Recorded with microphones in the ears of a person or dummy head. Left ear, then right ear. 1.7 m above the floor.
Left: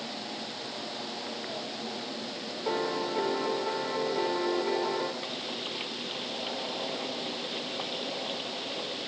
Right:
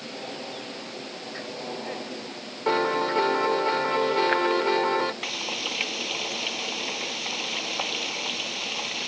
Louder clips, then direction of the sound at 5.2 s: Right 6 dB; 50° right (ahead or behind).